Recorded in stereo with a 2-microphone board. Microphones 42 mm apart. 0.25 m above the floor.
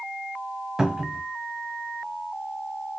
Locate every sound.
0.8 s a cupboard door: 15° right (ahead or behind), 0.6 m